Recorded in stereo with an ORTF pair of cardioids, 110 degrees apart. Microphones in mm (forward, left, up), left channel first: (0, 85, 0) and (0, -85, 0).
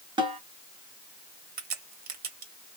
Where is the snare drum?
30° right, 1.2 m.